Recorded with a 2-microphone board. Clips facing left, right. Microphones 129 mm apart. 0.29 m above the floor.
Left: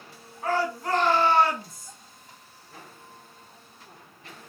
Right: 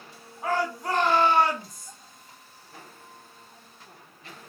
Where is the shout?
15° right (ahead or behind), 2 m.